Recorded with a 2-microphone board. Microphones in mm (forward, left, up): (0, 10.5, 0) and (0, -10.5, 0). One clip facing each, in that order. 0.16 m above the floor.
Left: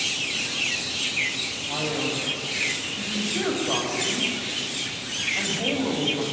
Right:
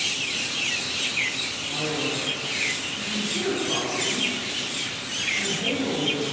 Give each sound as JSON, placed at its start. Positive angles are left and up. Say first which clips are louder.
{"t": 1.7, "sound": "a man speaking", "louder": "left 1 dB", "side_deg": 65, "distance_m": 6.0}